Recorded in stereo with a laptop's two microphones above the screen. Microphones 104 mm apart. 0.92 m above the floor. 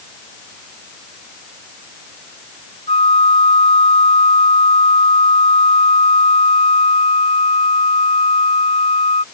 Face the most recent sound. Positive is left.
turn(degrees=80)